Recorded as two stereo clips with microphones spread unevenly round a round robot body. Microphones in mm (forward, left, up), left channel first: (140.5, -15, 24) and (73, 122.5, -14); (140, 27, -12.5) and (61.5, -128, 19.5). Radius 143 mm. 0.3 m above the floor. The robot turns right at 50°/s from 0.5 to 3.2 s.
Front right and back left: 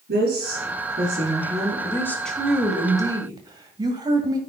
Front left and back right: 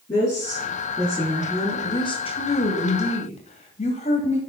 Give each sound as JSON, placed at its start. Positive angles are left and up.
{"t": 0.1, "sound": "a woman speaking", "azimuth_deg": 140, "distance_m": 7.0}
{"t": 1.8, "sound": "a woman speaking", "azimuth_deg": 15, "distance_m": 1.7}